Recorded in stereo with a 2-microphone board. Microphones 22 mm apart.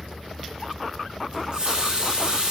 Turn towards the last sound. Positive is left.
turn(degrees=-40)  # may be behind; listen again after turning